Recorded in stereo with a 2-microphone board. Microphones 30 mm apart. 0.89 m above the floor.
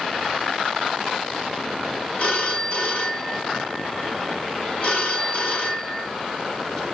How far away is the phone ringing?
About 5.5 m.